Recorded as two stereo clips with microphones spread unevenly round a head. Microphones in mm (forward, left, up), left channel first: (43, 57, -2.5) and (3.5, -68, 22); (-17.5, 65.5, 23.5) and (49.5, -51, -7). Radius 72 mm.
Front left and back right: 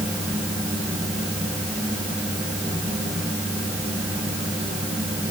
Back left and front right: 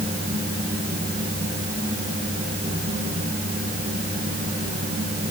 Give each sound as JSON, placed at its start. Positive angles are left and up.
{"t": 0.0, "sound": "a fan", "azimuth_deg": -25, "distance_m": 8.5}